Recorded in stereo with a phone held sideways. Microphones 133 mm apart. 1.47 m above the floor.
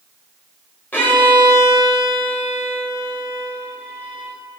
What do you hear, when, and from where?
0.9 s a violin: 15° left (ahead or behind), 1.3 m